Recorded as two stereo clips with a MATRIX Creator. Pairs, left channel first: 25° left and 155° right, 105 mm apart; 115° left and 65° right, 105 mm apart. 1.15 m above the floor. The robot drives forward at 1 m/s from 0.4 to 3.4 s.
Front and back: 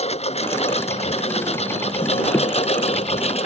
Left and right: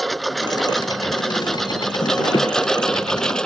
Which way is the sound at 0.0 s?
25° left.